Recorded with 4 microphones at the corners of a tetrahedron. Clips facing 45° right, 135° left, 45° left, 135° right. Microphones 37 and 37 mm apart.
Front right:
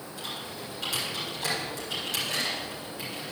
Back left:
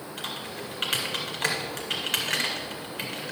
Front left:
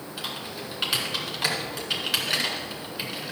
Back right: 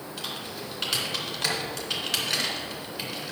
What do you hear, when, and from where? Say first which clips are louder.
0.2 s typing on a keyboard: back left 2 dB, front left 2 dB; 120° left, 2 m